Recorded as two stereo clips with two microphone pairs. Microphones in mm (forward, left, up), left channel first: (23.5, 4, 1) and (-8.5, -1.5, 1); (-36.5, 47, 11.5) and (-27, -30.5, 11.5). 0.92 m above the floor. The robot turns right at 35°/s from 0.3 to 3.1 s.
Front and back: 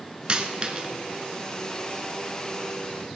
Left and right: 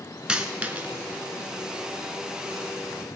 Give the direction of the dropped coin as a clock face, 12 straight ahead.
5 o'clock.